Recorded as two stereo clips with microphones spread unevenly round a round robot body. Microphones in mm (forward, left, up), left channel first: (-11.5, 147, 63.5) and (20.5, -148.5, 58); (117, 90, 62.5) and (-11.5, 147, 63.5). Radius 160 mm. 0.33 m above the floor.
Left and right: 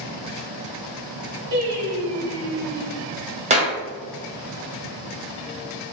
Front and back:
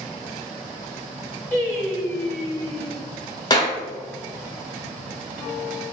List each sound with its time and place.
1.5 s singing: 105° right, 1.6 m
3.5 s a clap: 40° right, 0.8 m